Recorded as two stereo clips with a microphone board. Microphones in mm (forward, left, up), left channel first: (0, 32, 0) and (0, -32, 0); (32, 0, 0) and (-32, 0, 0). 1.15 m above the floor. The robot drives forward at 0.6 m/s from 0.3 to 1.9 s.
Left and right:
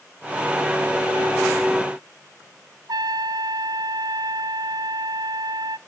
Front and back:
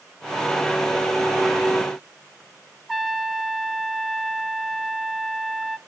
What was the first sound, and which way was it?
A trumpet, 90° right.